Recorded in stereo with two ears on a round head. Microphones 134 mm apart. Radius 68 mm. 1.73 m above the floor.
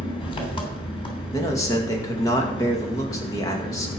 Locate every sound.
0.0 s an engine running: 35° left (ahead or behind), 3 m
1.3 s a man speaking: 20° left (ahead or behind), 2.0 m